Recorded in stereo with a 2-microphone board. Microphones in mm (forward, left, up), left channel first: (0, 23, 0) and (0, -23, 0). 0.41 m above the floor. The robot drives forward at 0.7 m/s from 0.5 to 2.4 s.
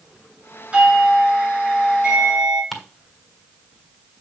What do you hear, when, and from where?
0.7 s a doorbell: 20° right (ahead or behind), 4.5 m; by 2.6 s 15° right (ahead or behind), 6 m
2.7 s ticking: centre (ahead or behind), 1.4 m